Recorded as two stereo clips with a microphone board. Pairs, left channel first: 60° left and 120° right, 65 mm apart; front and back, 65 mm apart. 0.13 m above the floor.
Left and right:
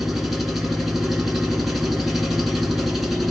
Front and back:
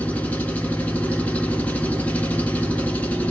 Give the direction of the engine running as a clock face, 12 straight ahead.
1 o'clock.